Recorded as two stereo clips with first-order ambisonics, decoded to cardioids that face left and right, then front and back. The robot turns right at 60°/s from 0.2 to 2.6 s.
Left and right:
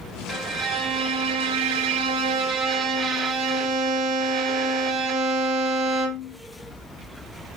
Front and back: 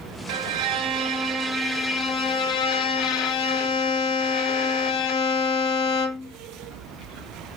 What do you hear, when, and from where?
0.3 s a violin: 170° right, 1.4 m; by 6.4 s 35° right, 1.4 m